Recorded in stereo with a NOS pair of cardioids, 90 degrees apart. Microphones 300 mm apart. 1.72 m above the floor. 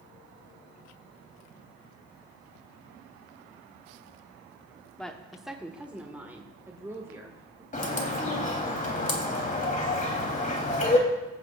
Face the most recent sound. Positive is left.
turn(degrees=25)